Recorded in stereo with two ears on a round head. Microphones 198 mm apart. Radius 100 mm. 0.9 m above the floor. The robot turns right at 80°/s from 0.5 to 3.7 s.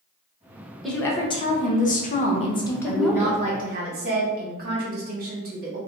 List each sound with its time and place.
0.8 s a woman speaking: straight ahead, 0.7 m; by 3.4 s 155° right, 0.7 m
2.9 s a woman speaking: 165° left, 1.4 m; by 5.8 s 125° right, 1.4 m